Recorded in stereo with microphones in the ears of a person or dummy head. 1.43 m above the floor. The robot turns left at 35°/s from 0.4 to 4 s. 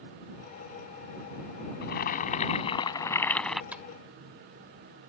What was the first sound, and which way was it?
Boiling, 70° left.